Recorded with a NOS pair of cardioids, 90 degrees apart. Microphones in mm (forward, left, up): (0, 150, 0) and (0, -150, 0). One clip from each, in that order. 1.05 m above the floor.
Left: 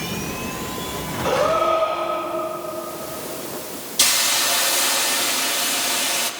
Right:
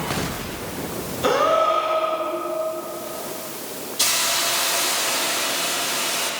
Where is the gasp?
65° right, 7 m.